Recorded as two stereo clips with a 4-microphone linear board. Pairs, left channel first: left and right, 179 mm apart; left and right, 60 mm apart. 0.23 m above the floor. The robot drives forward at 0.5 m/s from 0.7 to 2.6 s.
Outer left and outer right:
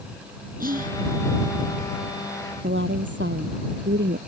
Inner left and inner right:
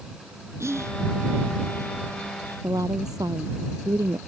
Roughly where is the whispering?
Right.